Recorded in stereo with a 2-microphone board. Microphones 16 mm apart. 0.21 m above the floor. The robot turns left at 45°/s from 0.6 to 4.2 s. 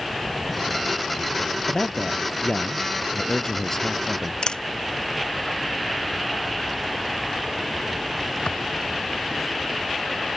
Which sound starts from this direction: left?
A camera shutter, at 4.4 s.